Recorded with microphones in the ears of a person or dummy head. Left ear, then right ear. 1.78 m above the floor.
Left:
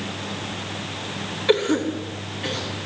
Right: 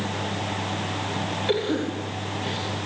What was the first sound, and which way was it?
A cough, 25° left (ahead or behind).